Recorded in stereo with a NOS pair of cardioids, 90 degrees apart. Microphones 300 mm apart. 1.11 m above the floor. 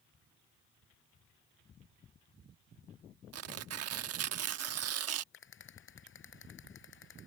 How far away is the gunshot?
No gunshot in this recording.